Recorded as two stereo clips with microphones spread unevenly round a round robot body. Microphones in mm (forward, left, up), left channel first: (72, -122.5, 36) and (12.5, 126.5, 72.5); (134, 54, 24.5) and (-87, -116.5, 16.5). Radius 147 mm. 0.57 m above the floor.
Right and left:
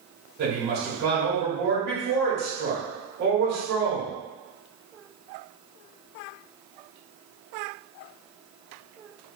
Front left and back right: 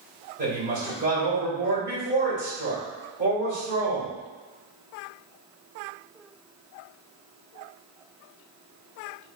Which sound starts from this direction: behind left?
A woman speaking, at 0.4 s.